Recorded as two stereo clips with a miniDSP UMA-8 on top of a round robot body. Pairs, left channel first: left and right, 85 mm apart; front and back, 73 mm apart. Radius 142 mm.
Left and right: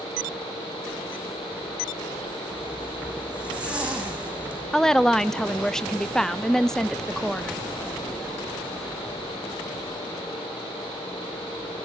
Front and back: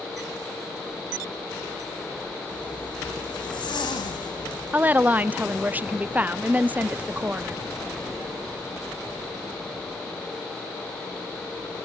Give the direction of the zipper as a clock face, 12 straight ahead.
12 o'clock.